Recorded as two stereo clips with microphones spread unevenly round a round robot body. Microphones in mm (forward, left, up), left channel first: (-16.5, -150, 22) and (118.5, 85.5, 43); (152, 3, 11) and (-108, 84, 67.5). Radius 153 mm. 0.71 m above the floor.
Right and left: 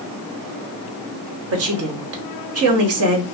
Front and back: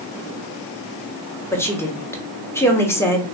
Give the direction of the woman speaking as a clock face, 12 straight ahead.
10 o'clock.